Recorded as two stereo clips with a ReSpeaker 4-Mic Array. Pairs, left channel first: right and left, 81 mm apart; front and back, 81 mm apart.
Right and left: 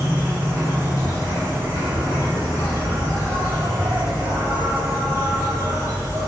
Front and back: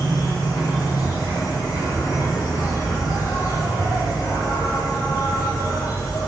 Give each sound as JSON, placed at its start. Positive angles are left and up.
{"t": 0.0, "sound": "an insect", "azimuth_deg": 35, "distance_m": 3.5}